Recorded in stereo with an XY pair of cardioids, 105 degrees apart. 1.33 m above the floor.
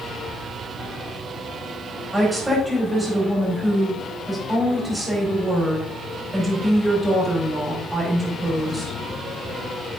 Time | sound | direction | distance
2.1 | a woman speaking | 5° right | 5 m